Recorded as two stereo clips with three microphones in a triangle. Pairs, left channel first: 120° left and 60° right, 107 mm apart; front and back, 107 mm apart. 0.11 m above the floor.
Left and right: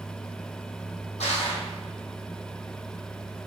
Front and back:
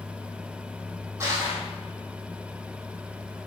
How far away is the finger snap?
No finger snap in this recording.